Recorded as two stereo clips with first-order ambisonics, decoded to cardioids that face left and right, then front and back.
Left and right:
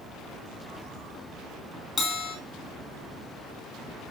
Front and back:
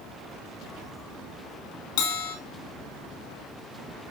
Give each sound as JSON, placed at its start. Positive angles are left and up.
{"t": 2.0, "sound": "a bell", "azimuth_deg": 20, "distance_m": 5.0}